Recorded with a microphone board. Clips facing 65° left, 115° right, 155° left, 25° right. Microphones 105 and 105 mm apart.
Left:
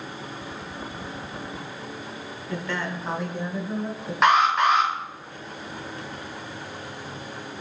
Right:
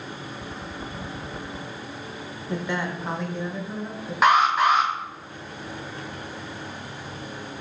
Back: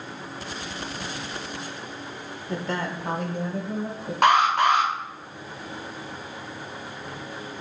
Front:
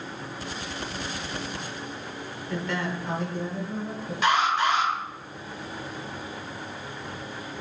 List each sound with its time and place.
2.5 s a woman speaking: 160° right, 1.0 m; by 4.1 s 135° left, 2 m
4.2 s an alarm: 160° left, 1.6 m